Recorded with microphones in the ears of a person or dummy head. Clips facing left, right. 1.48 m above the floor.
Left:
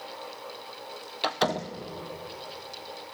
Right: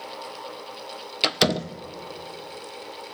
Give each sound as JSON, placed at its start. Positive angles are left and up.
{"t": 1.2, "sound": "a door slam", "side_deg": -30, "distance_m": 0.5}